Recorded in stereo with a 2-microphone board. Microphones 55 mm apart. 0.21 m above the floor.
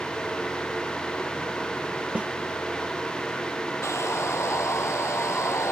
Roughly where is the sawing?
Left.